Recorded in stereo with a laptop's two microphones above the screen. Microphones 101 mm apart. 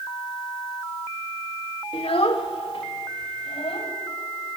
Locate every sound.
1.9 s a child speaking: 75° left (ahead or behind), 1.4 m; by 3.9 s 80° left, 3.5 m